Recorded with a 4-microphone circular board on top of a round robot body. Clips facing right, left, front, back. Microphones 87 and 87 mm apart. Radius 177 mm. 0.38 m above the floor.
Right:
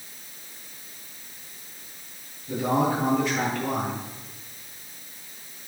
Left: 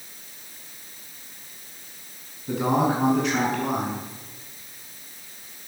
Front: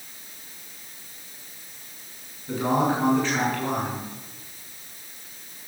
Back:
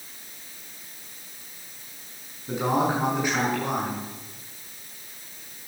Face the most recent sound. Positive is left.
turn(degrees=105)